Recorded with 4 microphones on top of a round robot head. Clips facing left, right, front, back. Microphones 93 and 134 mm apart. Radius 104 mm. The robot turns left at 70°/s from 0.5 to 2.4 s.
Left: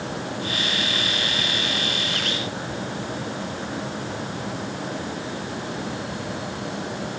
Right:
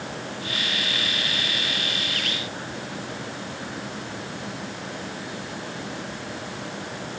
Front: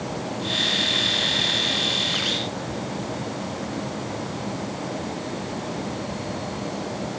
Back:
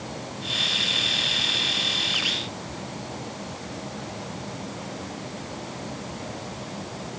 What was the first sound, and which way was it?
Only background noise.